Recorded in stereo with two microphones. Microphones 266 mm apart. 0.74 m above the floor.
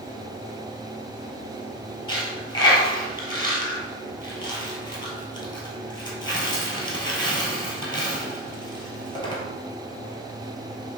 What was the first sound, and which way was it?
A dropped coin, 15° left (ahead or behind).